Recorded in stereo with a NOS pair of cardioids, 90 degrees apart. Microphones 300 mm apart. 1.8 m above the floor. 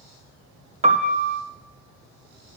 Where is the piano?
20° right, 0.9 m.